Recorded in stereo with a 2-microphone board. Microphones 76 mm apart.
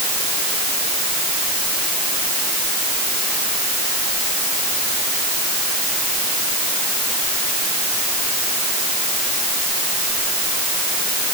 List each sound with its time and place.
Only background noise.